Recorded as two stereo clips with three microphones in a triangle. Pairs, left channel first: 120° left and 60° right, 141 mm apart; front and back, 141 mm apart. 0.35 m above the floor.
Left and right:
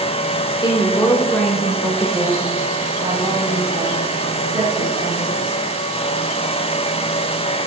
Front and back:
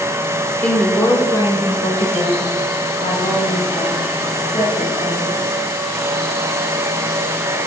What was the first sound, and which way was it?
A woman speaking, 80° left.